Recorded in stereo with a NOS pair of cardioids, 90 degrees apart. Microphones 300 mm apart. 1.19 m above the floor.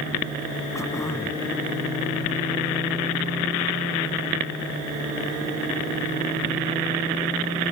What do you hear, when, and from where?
0.8 s throat clearing: 10° left